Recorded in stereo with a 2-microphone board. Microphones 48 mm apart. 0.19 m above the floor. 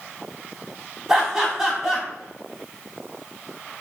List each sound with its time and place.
1.1 s laughter: 10° right (ahead or behind), 1.0 m